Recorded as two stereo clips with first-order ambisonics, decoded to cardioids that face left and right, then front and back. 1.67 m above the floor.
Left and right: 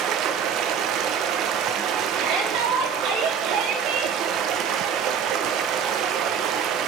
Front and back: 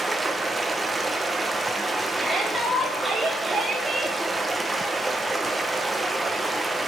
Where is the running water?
105° right, 0.9 m.